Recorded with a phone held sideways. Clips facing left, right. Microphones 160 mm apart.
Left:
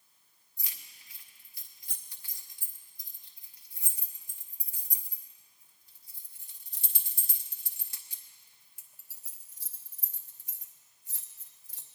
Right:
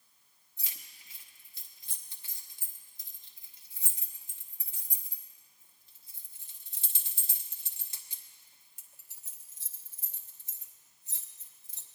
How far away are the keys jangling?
About 0.9 m.